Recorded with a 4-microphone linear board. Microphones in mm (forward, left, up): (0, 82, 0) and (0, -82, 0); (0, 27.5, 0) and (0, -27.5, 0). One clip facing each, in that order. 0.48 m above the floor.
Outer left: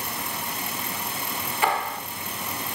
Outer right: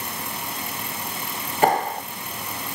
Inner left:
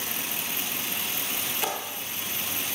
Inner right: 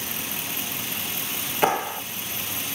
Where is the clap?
40° right (ahead or behind), 1.0 m.